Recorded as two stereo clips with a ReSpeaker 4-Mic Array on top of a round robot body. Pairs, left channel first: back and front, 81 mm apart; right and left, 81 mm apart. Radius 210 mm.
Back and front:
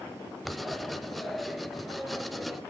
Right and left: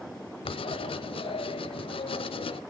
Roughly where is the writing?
Right.